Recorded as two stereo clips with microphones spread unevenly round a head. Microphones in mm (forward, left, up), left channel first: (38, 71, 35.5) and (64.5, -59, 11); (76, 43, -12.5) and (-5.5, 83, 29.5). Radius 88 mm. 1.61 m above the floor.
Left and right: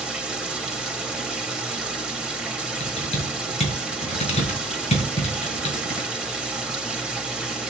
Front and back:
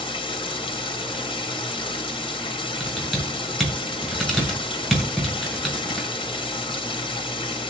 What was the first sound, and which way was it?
Running water, 10° left.